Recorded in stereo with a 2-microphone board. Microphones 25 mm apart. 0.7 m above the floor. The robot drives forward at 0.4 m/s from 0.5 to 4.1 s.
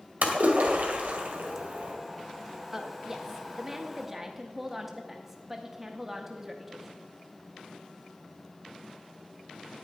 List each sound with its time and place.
0.2 s a splash: 75° right (ahead or behind), 1.7 m; by 1.9 s 85° right, 1.6 m
2.7 s a woman speaking: 10° right (ahead or behind), 0.8 m